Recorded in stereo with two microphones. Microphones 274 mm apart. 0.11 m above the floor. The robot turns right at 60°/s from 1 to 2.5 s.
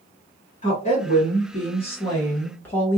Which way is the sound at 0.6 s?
25° left (ahead or behind).